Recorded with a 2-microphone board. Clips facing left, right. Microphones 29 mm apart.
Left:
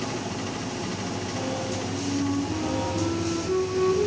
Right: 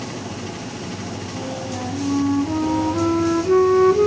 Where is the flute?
55° right (ahead or behind), 2 m.